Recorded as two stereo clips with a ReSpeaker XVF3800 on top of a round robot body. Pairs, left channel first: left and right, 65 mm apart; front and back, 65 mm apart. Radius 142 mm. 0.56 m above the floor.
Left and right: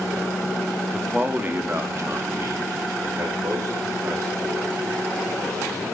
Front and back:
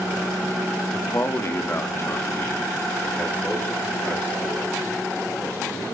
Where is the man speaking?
15° right, 1.0 m; by 5.9 s 60° right, 5 m.